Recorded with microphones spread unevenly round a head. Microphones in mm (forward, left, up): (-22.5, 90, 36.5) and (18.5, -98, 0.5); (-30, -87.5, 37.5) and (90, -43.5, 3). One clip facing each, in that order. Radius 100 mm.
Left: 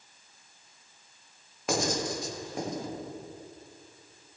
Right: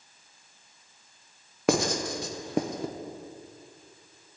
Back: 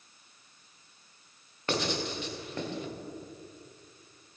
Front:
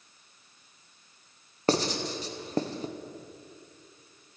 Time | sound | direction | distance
1.7 | writing | 40° right | 0.9 m